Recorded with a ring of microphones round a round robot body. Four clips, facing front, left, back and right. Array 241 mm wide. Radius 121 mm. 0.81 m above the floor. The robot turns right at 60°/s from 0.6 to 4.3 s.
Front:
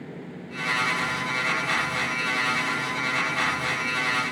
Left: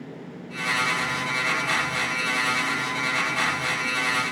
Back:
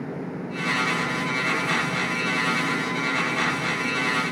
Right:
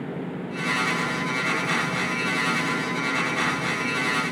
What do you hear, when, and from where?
Only background noise.